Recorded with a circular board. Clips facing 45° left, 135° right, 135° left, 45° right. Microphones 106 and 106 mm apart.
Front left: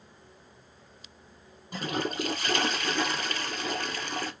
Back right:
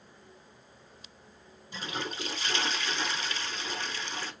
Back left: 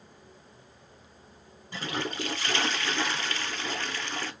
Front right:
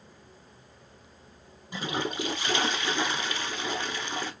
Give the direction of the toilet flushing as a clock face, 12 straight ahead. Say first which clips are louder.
Front left 6 dB, front right 2 dB; 11 o'clock.